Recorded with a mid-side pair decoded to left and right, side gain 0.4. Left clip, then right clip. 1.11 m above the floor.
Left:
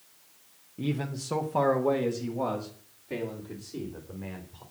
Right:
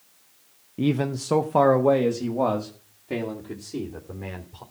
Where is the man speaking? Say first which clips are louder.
Right 8 dB; 60° right, 0.8 m.